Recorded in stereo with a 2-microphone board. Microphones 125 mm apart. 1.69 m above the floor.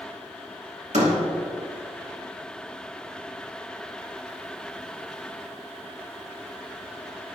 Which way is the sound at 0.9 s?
75° right (ahead or behind).